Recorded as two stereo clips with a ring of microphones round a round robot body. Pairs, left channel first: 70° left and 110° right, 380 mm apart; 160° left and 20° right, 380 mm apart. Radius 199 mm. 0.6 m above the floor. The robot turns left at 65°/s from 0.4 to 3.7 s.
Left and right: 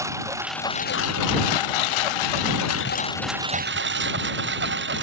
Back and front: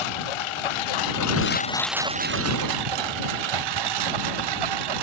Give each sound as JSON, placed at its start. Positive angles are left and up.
{"t": 0.0, "sound": "a lawn mower", "azimuth_deg": 165}